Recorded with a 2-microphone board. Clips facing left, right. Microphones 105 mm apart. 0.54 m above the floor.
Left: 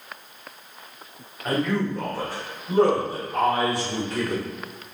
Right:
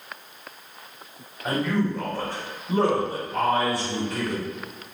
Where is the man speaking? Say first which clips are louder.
Even; 10° right (ahead or behind), 1.1 m; by 4.4 s 30° left (ahead or behind), 2.5 m.